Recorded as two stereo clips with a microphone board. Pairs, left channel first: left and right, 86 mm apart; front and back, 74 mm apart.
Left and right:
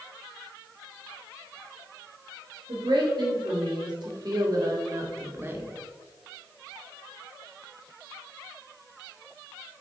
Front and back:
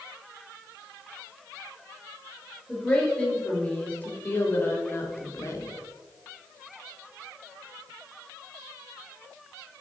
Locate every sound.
2.7 s a woman speaking: 75° right, 2.5 m; by 5.7 s 30° right, 1.3 m